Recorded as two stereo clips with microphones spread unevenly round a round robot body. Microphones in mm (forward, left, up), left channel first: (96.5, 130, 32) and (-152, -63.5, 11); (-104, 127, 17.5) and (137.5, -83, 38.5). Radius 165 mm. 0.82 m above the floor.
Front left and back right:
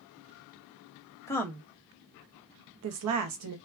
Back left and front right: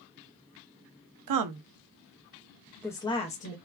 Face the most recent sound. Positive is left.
turn(degrees=-160)